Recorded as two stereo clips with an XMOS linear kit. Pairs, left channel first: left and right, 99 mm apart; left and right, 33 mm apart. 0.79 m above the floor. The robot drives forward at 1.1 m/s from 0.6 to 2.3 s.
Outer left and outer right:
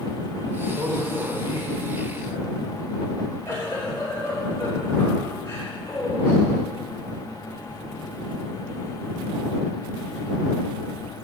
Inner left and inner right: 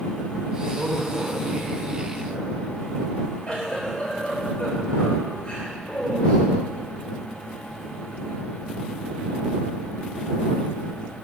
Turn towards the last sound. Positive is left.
turn(degrees=30)  # may be behind; listen again after turning